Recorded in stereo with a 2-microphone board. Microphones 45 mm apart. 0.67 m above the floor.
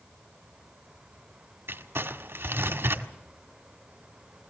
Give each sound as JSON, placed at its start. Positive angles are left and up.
{"t": 1.7, "sound": "crumpling", "side_deg": -60, "distance_m": 1.6}